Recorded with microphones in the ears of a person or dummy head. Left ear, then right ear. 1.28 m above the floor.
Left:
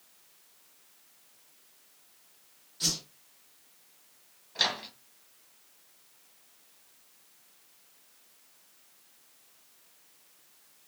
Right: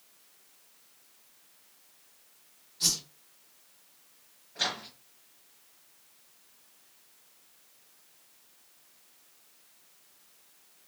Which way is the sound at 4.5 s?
40° left (ahead or behind).